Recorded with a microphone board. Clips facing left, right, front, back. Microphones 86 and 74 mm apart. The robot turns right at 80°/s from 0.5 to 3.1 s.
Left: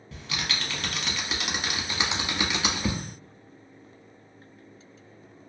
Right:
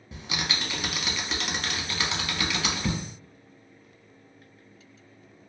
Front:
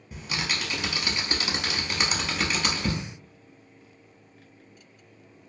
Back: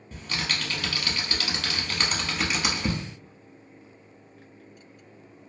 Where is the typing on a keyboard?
60° right, 0.7 m; by 3.0 s 140° left, 0.7 m.